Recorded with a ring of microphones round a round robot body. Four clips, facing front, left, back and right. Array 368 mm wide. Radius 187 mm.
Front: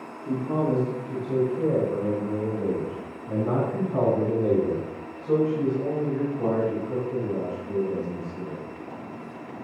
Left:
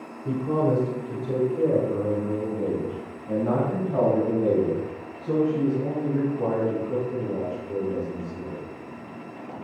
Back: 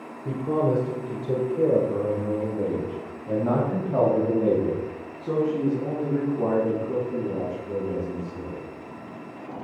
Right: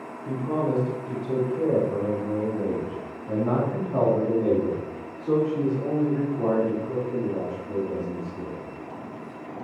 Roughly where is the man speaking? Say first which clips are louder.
Left 3 dB, back 1 dB; behind left.